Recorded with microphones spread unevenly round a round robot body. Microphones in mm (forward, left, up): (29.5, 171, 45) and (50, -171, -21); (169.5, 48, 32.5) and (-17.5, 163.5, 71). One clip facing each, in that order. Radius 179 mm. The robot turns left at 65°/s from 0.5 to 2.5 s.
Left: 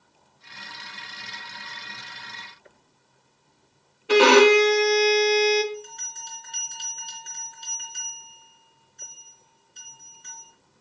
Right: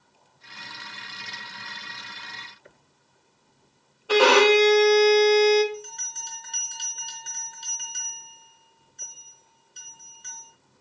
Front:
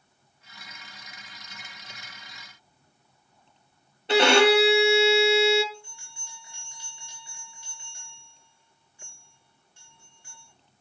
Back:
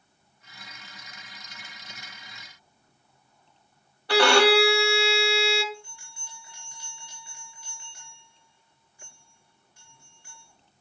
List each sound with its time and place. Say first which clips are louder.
4.1 s a violin: left 3 dB, front 1 dB; 30° left, 1.3 m
5.7 s a bell: left 1 dB, back 1 dB; 110° right, 3.5 m